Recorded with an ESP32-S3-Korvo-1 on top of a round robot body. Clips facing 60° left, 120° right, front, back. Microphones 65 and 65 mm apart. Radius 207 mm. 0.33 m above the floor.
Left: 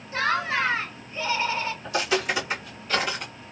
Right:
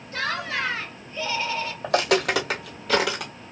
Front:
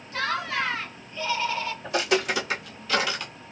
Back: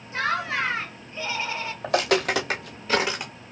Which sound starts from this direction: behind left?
Laughter, at 0.1 s.